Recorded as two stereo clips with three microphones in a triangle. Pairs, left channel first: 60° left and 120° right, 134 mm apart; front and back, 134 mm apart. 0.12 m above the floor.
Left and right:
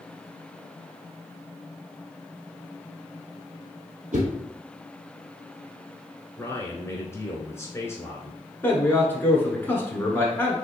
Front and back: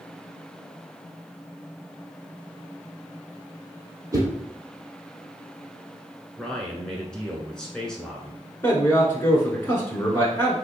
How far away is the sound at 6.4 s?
About 1.1 m.